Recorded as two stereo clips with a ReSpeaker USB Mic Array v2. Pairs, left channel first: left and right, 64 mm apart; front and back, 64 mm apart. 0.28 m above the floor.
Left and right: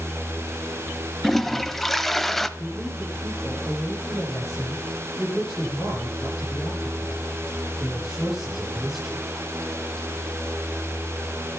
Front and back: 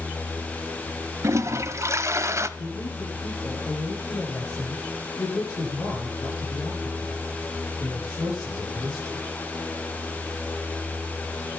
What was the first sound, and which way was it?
A toilet flushing, 175° left.